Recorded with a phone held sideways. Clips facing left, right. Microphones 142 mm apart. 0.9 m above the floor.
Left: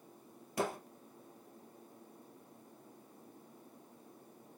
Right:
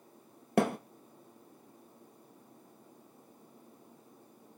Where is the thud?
65° right (ahead or behind), 2.0 m.